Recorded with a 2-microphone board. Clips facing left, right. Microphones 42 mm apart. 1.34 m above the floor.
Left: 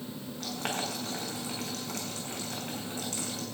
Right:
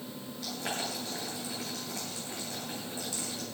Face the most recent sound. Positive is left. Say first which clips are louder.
# left 2 dB
turn(degrees=55)  # may be behind; listen again after turning